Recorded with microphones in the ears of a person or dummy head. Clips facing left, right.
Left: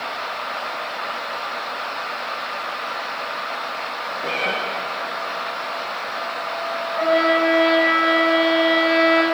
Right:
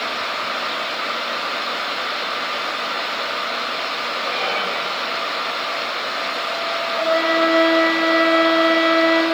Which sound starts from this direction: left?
A cat meowing, at 4.2 s.